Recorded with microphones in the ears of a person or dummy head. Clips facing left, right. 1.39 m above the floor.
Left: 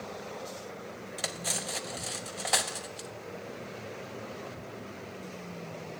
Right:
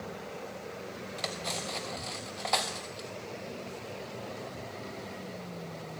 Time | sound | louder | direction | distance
1.2 | cutlery clinking | right 1 dB | 15° left (ahead or behind) | 0.7 m